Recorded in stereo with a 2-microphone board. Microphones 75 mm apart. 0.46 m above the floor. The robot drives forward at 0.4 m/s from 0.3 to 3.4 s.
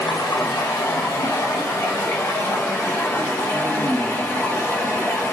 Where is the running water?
65° left (ahead or behind), 1.1 m; by 5.3 s 35° left (ahead or behind), 1.8 m.